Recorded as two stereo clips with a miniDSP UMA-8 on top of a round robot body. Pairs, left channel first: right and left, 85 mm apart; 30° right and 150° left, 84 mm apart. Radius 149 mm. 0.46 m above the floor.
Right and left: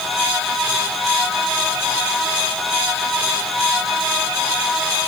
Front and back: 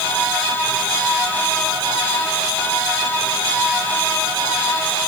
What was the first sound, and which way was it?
Only background noise.